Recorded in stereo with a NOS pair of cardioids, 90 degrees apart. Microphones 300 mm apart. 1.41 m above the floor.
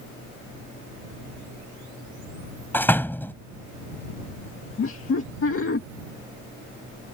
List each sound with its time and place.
2.7 s a door slam: 5° left
4.8 s laughter: 45° left